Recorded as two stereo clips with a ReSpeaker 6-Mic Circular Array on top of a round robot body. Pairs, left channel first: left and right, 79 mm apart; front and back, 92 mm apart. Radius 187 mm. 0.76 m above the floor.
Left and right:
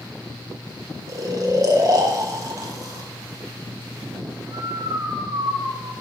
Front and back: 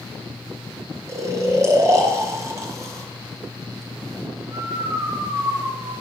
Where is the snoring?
130° right, 1.5 m.